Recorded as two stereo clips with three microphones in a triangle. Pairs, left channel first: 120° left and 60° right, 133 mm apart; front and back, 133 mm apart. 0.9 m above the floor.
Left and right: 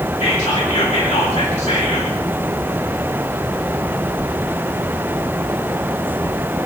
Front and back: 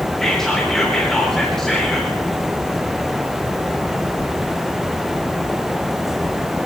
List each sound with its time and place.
0.2 s whispering: 85° left, 3.5 m